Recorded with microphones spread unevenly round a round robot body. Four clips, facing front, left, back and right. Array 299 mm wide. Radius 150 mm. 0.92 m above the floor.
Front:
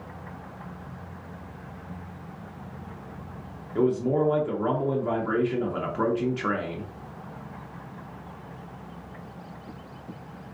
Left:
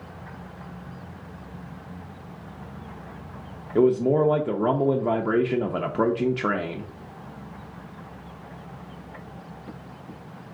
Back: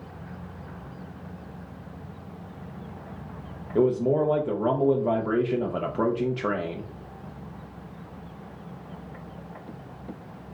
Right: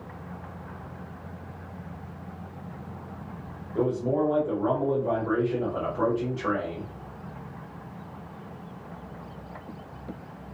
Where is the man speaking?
100° left, 0.6 m.